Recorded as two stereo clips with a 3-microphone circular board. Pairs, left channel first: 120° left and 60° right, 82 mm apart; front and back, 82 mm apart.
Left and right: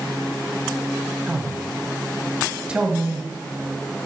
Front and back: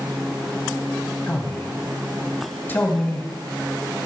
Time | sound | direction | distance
1.3 | a man speaking | 5° right | 1.4 m